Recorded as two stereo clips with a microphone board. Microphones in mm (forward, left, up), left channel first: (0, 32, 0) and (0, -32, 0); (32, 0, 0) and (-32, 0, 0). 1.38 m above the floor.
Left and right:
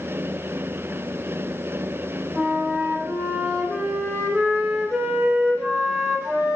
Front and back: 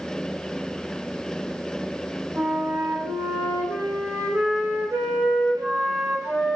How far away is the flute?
About 1.6 m.